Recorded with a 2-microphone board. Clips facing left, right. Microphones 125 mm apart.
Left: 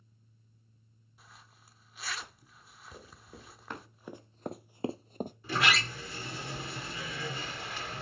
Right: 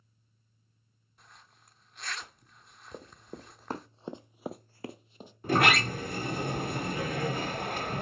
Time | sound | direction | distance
1.2 | a zipper | 5° left (ahead or behind) | 0.7 m
2.9 | running footsteps | 45° right (ahead or behind) | 1.6 m
5.4 | a sliding door | 55° right (ahead or behind) | 0.6 m